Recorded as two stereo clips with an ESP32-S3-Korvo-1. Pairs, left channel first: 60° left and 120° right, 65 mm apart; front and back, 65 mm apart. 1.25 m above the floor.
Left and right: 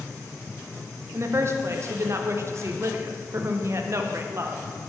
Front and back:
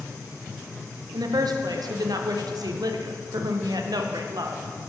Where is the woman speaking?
170° right, 0.5 m.